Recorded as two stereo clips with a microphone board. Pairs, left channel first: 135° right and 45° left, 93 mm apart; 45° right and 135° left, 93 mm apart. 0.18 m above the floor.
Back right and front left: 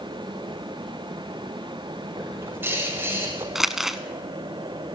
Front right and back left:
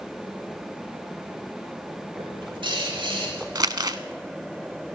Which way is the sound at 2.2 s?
110° left.